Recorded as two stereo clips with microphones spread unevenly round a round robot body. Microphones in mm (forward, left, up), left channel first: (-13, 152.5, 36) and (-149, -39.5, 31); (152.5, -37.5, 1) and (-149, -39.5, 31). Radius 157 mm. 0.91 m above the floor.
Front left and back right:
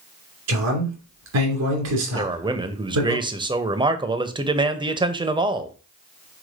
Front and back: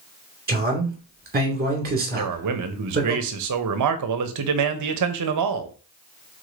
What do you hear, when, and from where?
0.5 s a man speaking: 120° right, 2.5 m
2.1 s a man speaking: 170° left, 0.7 m